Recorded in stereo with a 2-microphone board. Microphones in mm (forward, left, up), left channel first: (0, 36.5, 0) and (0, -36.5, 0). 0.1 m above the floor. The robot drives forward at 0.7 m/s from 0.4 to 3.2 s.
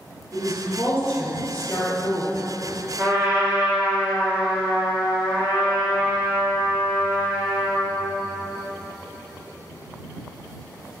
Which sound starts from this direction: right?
A trumpet, at 3.0 s.